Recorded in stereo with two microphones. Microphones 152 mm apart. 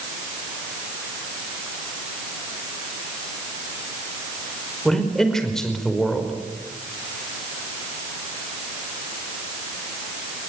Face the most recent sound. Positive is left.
turn(degrees=5)  # may be behind; listen again after turning